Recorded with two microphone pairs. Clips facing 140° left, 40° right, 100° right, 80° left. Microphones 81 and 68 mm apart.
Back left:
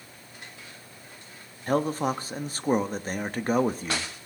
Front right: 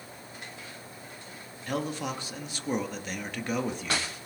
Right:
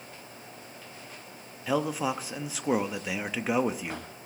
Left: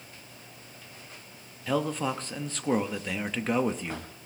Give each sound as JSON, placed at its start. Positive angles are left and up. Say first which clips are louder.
{"t": 1.7, "sound": "a man speaking", "louder": "back left 7 dB, even", "azimuth_deg": 180, "distance_m": 0.8}